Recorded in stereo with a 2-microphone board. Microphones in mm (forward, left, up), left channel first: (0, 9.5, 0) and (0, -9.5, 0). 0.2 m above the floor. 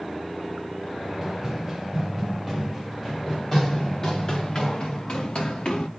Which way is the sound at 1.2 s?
20° right (ahead or behind).